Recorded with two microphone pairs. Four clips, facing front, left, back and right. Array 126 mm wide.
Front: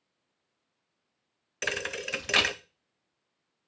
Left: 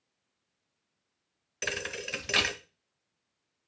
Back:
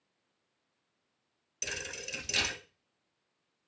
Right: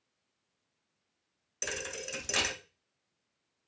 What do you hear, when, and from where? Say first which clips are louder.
1.6 s a thud: left 3 dB, front 9 dB; 10° left, 0.8 m